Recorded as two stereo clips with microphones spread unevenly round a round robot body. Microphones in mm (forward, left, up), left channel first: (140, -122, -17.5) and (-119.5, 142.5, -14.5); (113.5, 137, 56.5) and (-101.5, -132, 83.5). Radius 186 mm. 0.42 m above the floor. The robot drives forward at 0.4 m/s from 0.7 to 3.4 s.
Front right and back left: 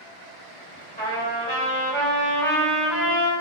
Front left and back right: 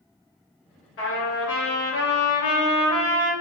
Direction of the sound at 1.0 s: 20° left.